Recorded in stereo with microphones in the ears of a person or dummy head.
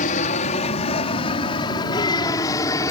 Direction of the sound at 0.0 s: 35° left (ahead or behind).